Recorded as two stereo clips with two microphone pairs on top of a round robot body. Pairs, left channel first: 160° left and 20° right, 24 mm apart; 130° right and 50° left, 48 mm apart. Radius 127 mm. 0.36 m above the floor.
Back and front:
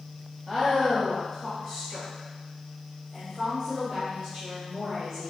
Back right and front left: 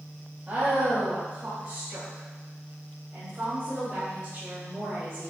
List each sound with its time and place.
0.5 s a woman speaking: 50° left, 1.8 m